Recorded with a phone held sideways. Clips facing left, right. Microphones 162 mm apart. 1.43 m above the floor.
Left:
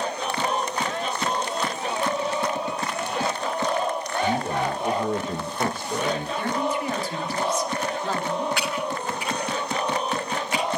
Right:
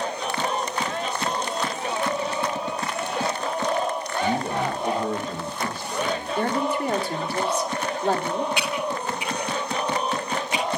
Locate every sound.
4.2 s a man speaking: 15° right (ahead or behind), 2 m; by 6.3 s 70° left (ahead or behind), 2 m
6.4 s a woman speaking: 60° right (ahead or behind), 3 m
8.6 s typing on a keyboard: 20° right (ahead or behind), 9 m